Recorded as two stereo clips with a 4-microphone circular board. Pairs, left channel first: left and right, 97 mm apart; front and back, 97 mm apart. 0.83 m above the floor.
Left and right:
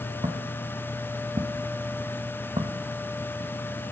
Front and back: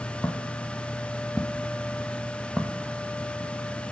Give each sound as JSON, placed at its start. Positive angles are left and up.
{"t": 0.2, "sound": "footsteps", "azimuth_deg": -75, "distance_m": 3.0}